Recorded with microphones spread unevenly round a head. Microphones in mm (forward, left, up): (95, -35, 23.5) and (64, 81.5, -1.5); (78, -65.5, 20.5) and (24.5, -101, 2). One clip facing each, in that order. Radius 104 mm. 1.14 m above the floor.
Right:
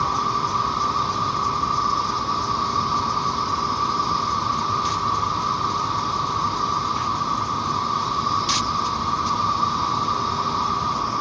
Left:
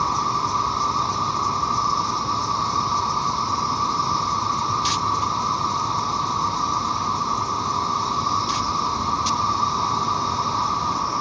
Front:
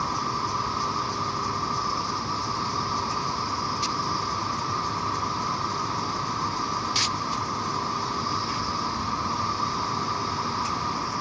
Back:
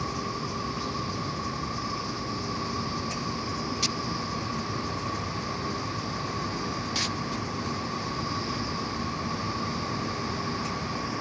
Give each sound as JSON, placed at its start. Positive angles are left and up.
{"t": 0.0, "sound": "an insect", "azimuth_deg": 60}